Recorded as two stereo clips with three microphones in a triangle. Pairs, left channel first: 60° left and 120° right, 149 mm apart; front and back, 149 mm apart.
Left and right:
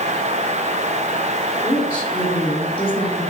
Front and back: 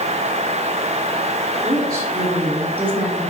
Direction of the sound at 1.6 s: 120° left.